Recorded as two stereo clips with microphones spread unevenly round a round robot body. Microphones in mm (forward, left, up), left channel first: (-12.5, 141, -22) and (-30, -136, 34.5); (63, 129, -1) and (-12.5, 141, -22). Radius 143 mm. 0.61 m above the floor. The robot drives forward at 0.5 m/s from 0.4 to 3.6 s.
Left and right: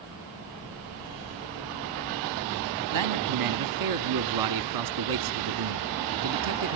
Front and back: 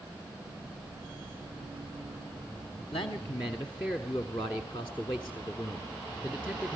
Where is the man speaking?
75° right, 1.0 m; by 6.8 s 100° right, 0.9 m.